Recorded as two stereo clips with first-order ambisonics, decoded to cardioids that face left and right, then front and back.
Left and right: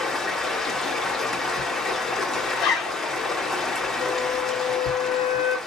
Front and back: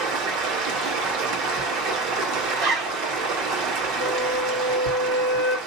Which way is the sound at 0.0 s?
170° left.